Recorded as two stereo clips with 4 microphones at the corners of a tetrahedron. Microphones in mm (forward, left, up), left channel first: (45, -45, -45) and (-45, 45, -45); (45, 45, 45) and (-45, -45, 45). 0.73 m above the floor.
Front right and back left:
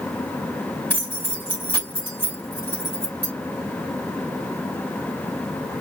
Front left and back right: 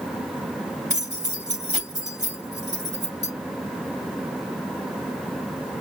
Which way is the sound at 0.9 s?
120° right.